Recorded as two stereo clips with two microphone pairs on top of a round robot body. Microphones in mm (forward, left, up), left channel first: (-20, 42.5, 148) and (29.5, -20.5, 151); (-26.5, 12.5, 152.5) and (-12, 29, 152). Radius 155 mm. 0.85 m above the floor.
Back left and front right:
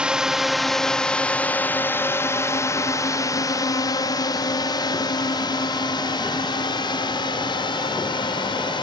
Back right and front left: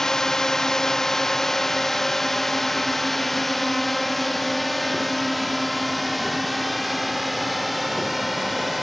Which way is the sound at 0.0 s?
115° right.